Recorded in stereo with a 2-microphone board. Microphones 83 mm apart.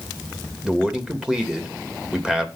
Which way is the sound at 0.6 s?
10° right (ahead or behind).